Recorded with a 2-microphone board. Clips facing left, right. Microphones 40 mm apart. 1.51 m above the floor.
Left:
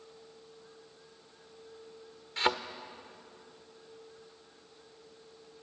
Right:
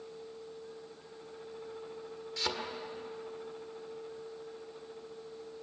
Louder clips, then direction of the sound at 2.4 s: Left 7 dB; 40° left (ahead or behind).